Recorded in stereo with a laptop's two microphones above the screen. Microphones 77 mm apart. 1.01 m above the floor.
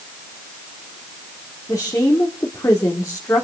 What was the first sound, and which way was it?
A woman speaking, 45° left (ahead or behind).